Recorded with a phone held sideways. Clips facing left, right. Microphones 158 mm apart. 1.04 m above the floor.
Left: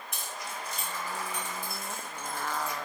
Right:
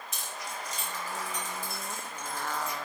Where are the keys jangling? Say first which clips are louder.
Even; 60° left (ahead or behind), 2.5 m.